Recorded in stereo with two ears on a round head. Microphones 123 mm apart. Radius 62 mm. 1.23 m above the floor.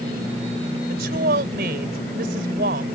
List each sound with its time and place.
0.9 s a woman speaking: 75° right (ahead or behind)